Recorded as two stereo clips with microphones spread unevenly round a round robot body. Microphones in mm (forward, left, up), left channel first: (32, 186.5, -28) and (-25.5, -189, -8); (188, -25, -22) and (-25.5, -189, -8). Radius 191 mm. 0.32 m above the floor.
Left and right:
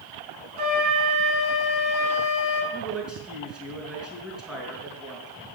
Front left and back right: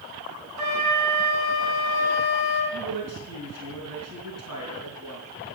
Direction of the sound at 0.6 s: 140° right.